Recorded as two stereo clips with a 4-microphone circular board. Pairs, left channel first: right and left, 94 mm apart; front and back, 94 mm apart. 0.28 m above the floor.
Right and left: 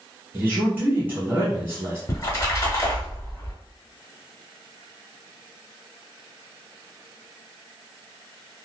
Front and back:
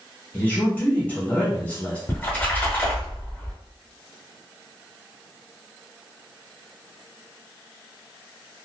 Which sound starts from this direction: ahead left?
A man speaking, at 0.3 s.